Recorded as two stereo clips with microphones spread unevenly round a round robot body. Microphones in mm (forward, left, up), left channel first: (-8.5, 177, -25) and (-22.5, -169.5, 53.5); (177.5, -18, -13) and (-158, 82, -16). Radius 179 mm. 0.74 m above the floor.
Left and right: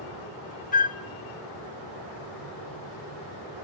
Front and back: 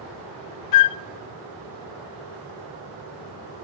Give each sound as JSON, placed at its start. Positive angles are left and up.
{"t": 0.7, "sound": "a flute", "azimuth_deg": 20, "distance_m": 0.7}